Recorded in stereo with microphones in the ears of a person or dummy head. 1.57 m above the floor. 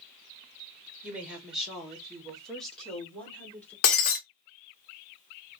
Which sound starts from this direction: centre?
A woman speaking, at 1.0 s.